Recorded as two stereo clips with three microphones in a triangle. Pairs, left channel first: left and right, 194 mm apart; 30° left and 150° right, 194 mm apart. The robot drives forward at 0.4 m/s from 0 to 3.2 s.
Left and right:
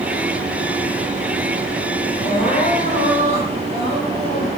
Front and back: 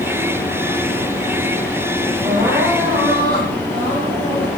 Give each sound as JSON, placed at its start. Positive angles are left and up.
{"t": 2.2, "sound": "crying", "azimuth_deg": 140, "distance_m": 6.0}